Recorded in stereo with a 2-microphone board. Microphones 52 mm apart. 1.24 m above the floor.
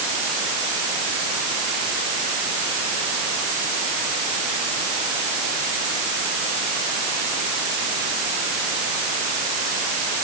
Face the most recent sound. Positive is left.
No sound to turn to.